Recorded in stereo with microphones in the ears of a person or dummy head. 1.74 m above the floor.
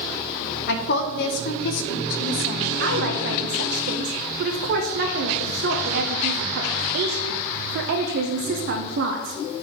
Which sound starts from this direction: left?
A woman speaking, at 0.7 s.